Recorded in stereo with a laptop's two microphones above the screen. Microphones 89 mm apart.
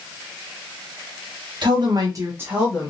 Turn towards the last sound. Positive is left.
turn(degrees=5)  # may be behind; listen again after turning